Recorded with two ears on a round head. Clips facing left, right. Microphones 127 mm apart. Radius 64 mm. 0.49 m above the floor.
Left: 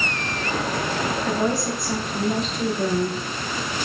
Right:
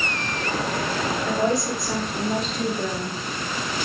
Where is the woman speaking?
Centre (ahead or behind), 0.8 m; by 3.2 s 5° right (ahead or behind), 1.1 m.